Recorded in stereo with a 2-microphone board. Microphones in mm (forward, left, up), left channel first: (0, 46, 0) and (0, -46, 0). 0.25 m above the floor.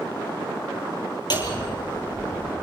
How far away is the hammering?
About 4.5 m.